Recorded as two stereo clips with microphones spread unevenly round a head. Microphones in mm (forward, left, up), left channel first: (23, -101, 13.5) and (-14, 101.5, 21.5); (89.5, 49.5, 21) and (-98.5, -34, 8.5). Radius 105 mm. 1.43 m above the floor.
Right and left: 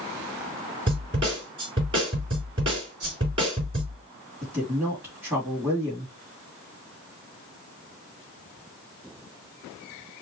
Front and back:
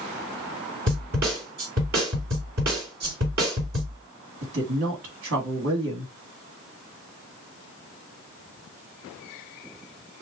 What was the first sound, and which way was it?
A snare drum, 165° left.